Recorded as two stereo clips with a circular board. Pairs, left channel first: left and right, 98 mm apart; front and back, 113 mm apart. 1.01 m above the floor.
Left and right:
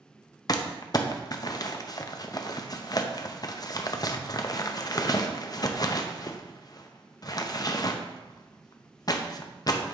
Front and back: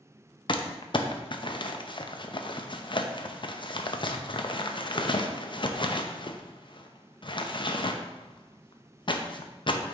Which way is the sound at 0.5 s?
40° left.